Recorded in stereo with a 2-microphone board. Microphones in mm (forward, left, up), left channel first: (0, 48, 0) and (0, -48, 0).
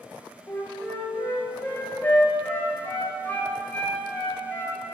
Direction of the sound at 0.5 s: 15° left (ahead or behind).